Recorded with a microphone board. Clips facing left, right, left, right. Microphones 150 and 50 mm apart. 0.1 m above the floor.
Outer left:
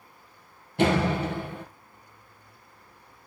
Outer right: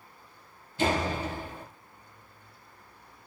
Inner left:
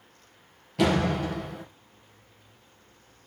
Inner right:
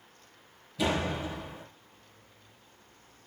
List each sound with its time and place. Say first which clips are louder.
0.8 s a door slam: outer left 5 dB, inner left 6 dB; 65° left (ahead or behind), 2.5 m